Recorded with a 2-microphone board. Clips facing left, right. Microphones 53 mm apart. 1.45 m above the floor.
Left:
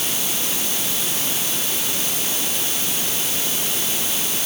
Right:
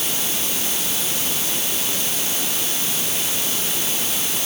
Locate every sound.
Only background noise.